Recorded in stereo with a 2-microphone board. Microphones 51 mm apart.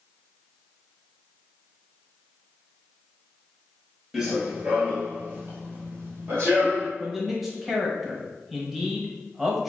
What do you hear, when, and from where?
4.1 s running footsteps: 10° right (ahead or behind), 0.9 m; by 6.9 s 45° right (ahead or behind), 1.7 m
7.0 s a man speaking: 5° right (ahead or behind), 0.8 m